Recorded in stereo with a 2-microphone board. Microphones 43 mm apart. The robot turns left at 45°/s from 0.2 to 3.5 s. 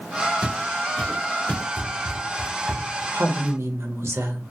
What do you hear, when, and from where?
0.4 s footsteps: 15° right (ahead or behind), 1.2 m; by 1.6 s 40° left (ahead or behind), 1.4 m
1.8 s running footsteps: 15° left (ahead or behind), 1.3 m
3.1 s a woman speaking: 60° right (ahead or behind), 0.8 m; by 4.5 s 75° right (ahead or behind), 0.8 m